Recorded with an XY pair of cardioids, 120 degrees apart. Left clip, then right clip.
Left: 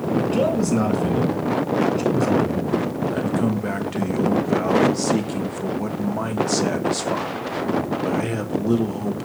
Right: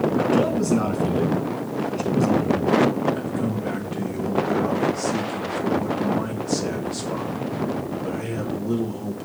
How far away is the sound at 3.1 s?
About 1.3 m.